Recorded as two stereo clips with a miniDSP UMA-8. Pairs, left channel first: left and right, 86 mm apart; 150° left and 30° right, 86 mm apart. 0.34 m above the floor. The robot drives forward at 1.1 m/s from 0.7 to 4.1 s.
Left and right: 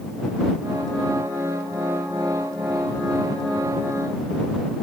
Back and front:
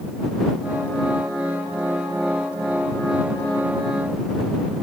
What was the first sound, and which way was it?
Only background noise.